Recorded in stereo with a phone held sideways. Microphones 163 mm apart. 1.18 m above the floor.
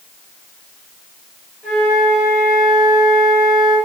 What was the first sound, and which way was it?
A flute, 5° left (ahead or behind).